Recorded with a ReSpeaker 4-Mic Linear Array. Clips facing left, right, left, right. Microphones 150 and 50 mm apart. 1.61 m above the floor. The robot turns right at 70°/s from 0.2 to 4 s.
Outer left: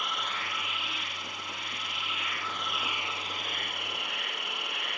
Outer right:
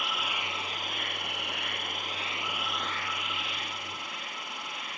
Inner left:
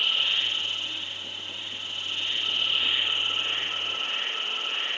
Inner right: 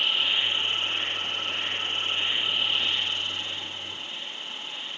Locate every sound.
0.0 s an insect: 175° right; by 5.0 s 90° left